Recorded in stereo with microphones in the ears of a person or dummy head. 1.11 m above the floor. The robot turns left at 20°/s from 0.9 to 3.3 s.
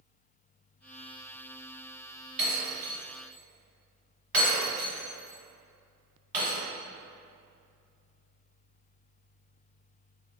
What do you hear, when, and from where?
2.4 s breaking glass: 40° right (ahead or behind), 2.0 m; by 6.6 s 55° right (ahead or behind), 2.0 m